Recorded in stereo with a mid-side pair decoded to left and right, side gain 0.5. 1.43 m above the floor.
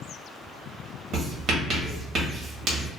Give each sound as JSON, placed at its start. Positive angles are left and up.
{"t": 1.1, "sound": "writing", "azimuth_deg": -60, "distance_m": 1.2}